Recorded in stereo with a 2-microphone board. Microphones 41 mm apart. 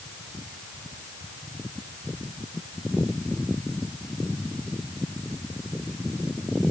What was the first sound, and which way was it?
Only background noise.